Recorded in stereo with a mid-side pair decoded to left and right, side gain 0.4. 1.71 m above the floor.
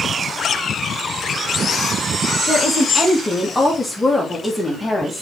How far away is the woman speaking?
About 1.7 m.